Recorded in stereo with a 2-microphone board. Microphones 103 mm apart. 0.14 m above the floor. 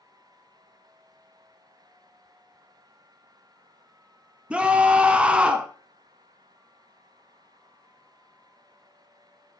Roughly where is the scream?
Centre.